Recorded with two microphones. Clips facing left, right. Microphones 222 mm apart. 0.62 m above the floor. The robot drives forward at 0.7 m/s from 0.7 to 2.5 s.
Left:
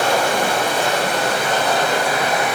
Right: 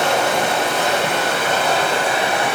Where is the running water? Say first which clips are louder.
Even; 25° right (ahead or behind), 6.5 m; by 2.6 s 30° right (ahead or behind), 5 m.